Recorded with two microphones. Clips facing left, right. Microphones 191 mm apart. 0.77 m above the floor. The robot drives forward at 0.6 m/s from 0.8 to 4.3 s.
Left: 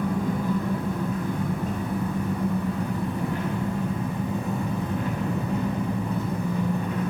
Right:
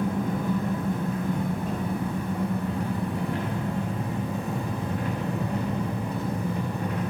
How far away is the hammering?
I don't hear hammering.